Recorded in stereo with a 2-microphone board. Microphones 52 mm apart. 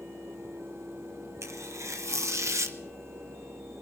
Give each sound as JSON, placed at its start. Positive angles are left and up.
{"t": 1.4, "sound": "tearing paper", "side_deg": -65, "distance_m": 1.0}